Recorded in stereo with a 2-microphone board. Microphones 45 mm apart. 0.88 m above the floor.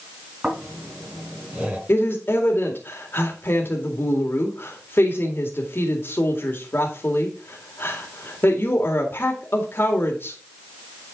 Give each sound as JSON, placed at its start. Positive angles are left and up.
{"t": 0.4, "sound": "snoring", "side_deg": -25, "distance_m": 4.5}
{"t": 1.9, "sound": "a woman speaking", "side_deg": 55, "distance_m": 2.0}